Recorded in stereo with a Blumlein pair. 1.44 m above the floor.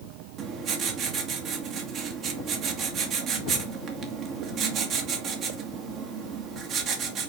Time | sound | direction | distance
0.4 | writing | 30° right | 1.9 m